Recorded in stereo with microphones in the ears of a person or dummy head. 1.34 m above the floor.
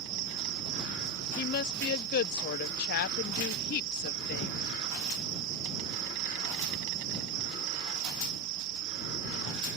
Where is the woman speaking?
60° left (ahead or behind).